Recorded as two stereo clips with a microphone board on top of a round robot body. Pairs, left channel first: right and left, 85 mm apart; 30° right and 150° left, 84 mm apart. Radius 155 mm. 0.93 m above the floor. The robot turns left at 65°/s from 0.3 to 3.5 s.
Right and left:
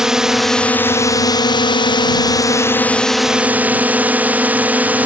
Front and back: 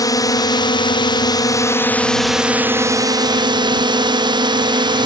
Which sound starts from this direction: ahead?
A drone, at 0.0 s.